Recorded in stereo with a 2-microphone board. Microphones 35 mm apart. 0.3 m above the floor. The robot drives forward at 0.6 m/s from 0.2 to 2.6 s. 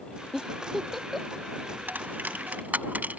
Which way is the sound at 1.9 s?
65° right (ahead or behind).